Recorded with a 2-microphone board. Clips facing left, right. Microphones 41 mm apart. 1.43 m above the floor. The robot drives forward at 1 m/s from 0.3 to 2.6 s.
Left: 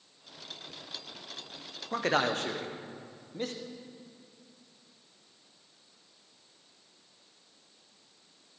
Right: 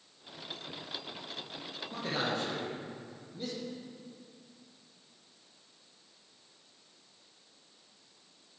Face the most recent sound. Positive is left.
turn(degrees=55)  # may be behind; listen again after turning